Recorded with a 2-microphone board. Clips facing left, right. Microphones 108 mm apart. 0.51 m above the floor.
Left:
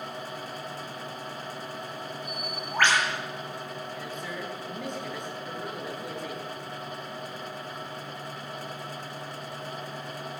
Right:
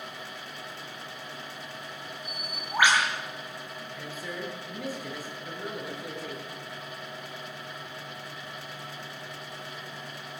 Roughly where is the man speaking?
Centre.